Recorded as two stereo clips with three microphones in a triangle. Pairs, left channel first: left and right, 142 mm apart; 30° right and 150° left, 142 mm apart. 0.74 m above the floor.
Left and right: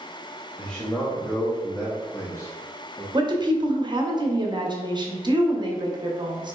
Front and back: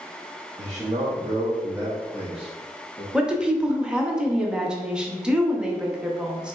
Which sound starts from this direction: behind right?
A woman speaking, at 3.1 s.